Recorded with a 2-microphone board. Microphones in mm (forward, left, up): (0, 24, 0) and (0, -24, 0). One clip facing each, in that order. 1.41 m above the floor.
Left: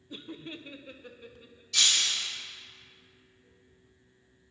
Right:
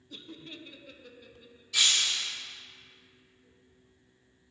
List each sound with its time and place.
0.1 s laughter: 20° left (ahead or behind), 0.6 m; by 1.6 s 25° left (ahead or behind), 1.5 m
1.7 s breaking glass: 5° right (ahead or behind), 3 m